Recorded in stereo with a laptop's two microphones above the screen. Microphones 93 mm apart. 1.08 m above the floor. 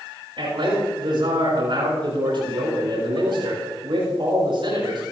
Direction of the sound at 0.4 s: 60° right (ahead or behind).